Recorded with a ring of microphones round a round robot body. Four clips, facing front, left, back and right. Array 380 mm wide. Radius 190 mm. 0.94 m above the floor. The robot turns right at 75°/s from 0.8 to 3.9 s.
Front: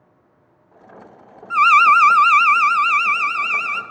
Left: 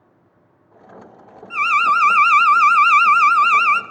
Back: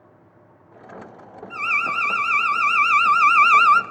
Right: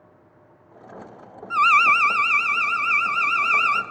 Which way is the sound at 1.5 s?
20° right.